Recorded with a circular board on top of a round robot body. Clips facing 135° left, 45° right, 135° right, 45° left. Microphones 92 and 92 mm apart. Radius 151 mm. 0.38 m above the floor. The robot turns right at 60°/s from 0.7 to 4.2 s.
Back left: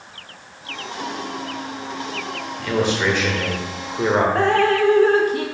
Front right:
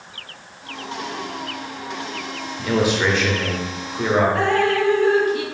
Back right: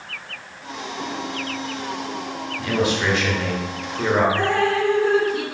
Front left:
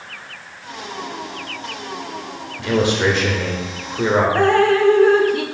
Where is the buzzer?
I don't hear a buzzer.